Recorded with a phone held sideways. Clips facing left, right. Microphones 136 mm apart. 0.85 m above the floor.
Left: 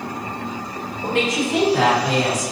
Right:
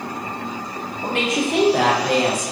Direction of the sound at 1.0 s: 60° right (ahead or behind).